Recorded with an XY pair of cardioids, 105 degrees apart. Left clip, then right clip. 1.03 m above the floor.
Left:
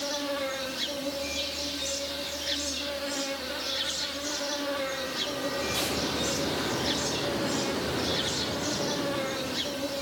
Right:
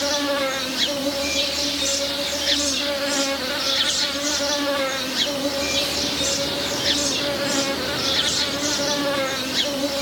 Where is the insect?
65° right, 1.1 m.